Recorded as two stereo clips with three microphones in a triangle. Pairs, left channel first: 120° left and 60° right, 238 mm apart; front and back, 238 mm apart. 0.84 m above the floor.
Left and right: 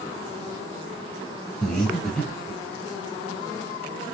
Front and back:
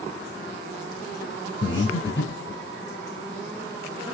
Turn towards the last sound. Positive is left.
turn(degrees=30)